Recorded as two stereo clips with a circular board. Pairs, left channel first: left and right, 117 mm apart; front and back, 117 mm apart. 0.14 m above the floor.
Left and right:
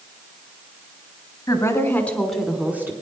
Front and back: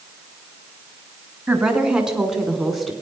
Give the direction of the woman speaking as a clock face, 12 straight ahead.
8 o'clock.